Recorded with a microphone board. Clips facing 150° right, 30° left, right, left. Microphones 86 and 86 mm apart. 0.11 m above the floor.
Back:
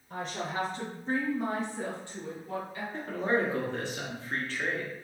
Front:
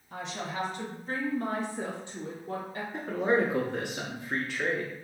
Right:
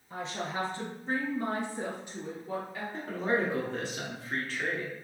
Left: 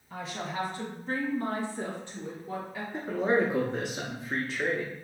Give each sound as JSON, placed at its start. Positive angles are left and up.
{"t": 0.1, "sound": "a woman speaking", "azimuth_deg": -145, "distance_m": 1.7}
{"t": 2.9, "sound": "a man speaking", "azimuth_deg": 70, "distance_m": 1.1}